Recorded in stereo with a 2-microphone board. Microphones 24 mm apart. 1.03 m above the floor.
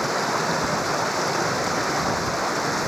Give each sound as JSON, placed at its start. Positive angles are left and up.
{"t": 0.0, "sound": "running water", "side_deg": 0}